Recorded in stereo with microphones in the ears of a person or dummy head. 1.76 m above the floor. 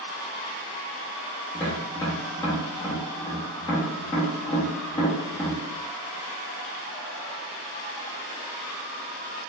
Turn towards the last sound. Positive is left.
turn(degrees=15)  # may be behind; listen again after turning